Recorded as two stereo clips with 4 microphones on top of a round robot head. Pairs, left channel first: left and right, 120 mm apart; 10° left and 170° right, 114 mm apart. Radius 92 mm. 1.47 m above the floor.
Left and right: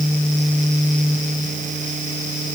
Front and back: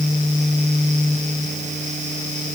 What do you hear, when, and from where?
Only background noise.